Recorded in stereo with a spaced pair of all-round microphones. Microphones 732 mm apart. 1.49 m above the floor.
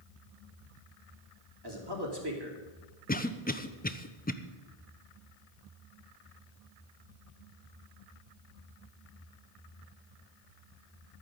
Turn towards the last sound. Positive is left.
turn(degrees=10)  # may be behind; listen again after turning